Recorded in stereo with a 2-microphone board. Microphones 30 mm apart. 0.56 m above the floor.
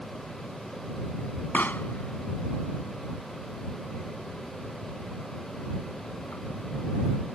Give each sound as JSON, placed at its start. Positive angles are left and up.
{"t": 1.5, "sound": "a pop", "side_deg": 85}